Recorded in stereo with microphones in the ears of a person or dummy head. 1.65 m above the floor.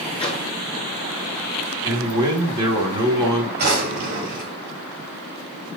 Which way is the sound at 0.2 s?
25° left (ahead or behind).